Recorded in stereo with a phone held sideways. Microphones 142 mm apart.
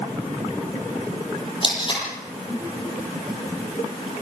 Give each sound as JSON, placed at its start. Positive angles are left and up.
{"t": 1.6, "sound": "tape being pulled", "side_deg": 35, "distance_m": 9.5}